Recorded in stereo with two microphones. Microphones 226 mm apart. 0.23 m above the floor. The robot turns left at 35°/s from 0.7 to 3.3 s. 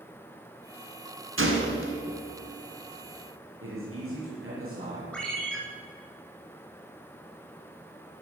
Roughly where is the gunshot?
Right.